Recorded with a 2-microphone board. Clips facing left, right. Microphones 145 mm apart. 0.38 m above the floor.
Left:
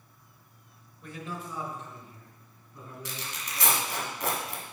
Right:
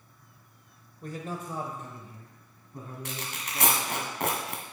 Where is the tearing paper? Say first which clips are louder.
Even; 65° right (ahead or behind), 1.7 m.